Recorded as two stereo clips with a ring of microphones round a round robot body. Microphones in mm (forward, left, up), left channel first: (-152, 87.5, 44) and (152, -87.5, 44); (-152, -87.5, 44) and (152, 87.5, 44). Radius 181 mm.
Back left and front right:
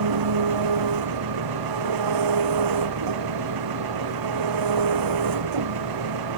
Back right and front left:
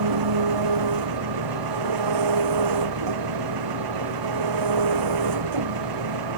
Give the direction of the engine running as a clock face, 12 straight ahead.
12 o'clock.